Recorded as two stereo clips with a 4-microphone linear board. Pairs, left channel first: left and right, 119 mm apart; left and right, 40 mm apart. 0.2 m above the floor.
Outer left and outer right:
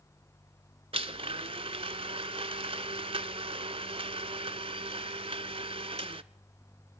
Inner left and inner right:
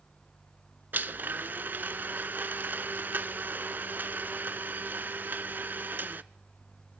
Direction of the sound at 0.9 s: 55° right (ahead or behind).